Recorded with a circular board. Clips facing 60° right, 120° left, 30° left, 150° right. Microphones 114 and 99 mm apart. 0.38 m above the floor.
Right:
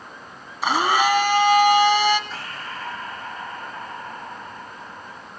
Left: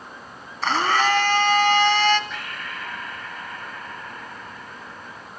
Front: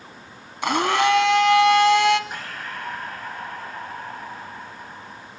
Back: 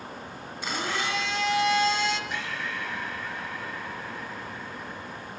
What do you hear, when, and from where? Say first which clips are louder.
0.6 s a blender: right 1 dB, front 12 dB; 20° left, 1.4 m
2.3 s breathing: right 1 dB, even; 5° right, 2.5 m